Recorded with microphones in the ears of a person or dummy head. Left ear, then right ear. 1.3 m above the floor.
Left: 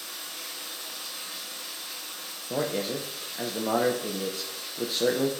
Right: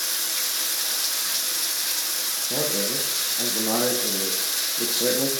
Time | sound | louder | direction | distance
0.0 | running water | right 11 dB | 70° right (ahead or behind) | 0.7 m
2.5 | a man speaking | right 1 dB | 15° left (ahead or behind) | 0.6 m